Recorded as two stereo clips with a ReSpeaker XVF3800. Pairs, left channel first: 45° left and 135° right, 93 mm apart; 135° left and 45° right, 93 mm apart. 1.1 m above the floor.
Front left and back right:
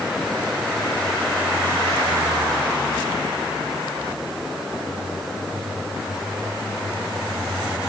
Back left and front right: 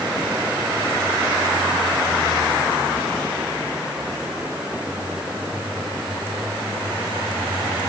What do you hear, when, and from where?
Only background noise.